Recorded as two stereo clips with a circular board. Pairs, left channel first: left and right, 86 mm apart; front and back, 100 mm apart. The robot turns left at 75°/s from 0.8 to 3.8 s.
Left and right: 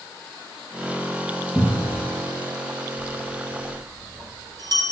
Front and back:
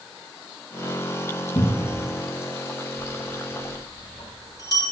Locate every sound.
1.6 s a cupboard door: straight ahead, 2 m; by 2.0 s 35° right, 2 m
3.0 s a bell: 10° left, 4 m; by 4.8 s 50° right, 4 m